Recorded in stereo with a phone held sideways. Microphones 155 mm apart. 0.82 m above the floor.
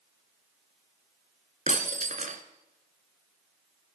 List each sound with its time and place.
1.7 s breaking glass: 55° right (ahead or behind), 1.5 m